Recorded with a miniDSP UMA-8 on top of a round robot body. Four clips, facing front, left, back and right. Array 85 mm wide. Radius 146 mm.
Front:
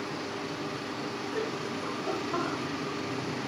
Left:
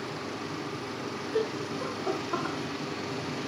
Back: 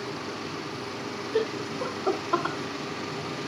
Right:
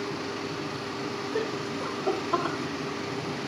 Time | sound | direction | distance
1.3 | laughter | 175° left | 1.3 m